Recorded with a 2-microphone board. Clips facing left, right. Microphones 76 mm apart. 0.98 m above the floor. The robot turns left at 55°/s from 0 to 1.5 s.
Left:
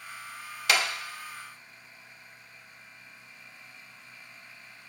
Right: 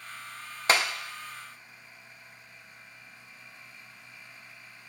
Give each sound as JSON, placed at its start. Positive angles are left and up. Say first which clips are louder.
{"t": 0.7, "sound": "a clap", "louder": "right 2 dB", "side_deg": -35, "distance_m": 0.6}